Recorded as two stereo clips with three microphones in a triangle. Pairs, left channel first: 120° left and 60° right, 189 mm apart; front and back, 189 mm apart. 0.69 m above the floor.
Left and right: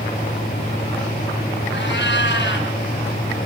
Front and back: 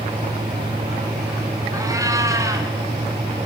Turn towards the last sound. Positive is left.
turn(degrees=110)